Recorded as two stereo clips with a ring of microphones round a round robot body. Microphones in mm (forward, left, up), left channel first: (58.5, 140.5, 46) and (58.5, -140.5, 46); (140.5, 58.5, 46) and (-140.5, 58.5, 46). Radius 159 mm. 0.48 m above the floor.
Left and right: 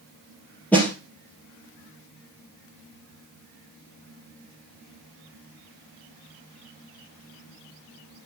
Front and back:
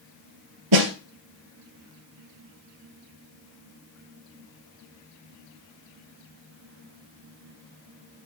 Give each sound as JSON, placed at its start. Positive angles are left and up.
{"t": 0.7, "sound": "a snare drum", "azimuth_deg": 175, "distance_m": 1.9}